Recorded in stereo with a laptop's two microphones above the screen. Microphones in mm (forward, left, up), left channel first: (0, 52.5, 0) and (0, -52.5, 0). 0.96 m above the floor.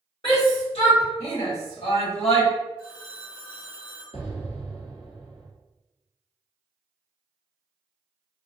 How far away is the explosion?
About 0.9 m.